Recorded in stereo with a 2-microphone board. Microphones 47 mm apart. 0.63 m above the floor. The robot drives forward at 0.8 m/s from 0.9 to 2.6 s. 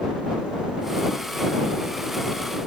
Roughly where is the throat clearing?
No throat clearing in this recording.